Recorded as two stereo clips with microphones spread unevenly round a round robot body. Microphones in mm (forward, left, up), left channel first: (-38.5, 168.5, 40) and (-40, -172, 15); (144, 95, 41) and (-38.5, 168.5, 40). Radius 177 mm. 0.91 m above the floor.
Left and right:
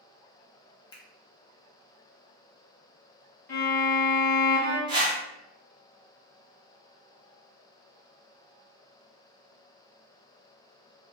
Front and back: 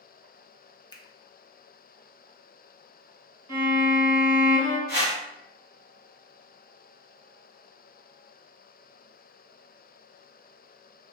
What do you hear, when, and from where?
0.9 s a finger snap: 20° left, 0.5 m
3.5 s a violin: 150° left, 1.7 m
4.9 s a whoosh: 170° right, 1.3 m